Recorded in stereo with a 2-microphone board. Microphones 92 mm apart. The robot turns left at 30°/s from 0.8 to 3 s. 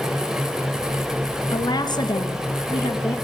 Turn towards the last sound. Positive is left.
turn(degrees=90)